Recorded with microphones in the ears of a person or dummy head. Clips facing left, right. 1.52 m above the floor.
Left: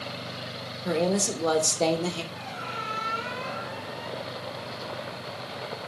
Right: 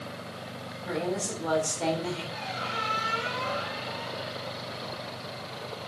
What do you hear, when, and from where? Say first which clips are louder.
0.8 s a woman speaking: left 6 dB; 65° left (ahead or behind), 1.9 m
2.3 s a squeak: right 2 dB; 50° right (ahead or behind), 1.9 m